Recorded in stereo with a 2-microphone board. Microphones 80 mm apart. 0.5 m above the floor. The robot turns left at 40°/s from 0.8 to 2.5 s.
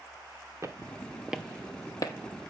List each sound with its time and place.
0.6 s footsteps: 40° right (ahead or behind), 0.6 m; by 2.1 s 55° left (ahead or behind), 0.9 m